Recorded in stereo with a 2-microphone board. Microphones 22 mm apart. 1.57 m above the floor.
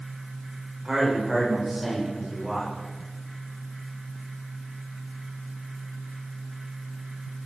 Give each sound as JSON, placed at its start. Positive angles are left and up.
{"t": 0.8, "sound": "a man speaking", "side_deg": -30, "distance_m": 7.0}